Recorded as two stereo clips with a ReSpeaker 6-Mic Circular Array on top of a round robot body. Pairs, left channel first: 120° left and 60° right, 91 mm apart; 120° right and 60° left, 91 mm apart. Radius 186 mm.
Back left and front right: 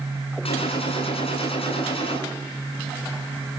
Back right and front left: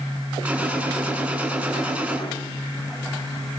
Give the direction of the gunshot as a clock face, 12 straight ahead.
7 o'clock.